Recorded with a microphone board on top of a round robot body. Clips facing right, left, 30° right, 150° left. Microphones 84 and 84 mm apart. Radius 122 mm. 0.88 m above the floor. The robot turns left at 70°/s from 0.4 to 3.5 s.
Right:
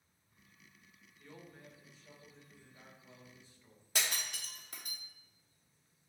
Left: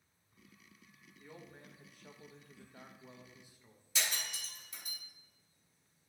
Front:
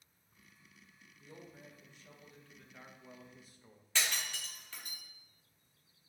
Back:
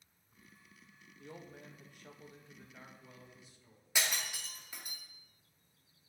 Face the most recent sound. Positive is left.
turn(degrees=-130)